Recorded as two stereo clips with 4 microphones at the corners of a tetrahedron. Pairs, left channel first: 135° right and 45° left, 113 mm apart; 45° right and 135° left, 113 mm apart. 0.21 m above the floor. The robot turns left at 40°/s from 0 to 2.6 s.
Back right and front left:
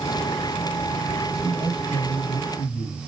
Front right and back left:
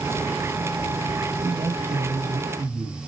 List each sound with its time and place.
1.4 s a man speaking: 150° right, 2 m; by 3.0 s 160° left, 2 m